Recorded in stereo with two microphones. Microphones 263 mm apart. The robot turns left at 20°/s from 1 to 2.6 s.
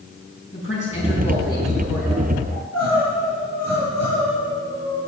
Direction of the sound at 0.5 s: 25° left (ahead or behind).